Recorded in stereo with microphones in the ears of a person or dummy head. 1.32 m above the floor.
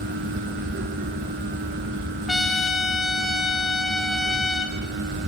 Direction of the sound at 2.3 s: Centre (ahead or behind).